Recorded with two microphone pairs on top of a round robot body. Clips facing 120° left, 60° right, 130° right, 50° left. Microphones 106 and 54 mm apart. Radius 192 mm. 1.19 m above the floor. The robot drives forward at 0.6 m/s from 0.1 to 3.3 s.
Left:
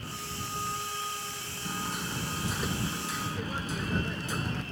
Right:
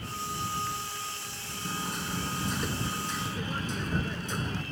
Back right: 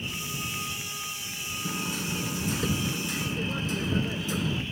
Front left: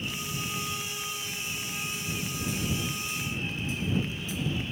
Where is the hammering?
155° right; by 4.6 s 160° right.